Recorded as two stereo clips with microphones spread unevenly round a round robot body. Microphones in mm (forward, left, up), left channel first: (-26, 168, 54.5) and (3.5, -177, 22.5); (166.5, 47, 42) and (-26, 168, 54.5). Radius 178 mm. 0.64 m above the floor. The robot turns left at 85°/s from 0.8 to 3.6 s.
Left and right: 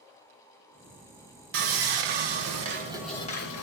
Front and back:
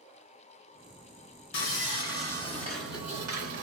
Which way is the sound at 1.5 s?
45° right.